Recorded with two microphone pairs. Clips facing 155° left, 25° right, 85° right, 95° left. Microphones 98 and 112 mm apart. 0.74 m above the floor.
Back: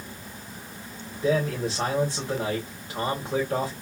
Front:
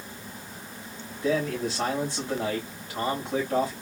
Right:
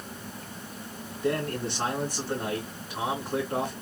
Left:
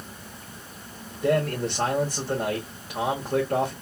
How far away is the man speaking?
About 3 m.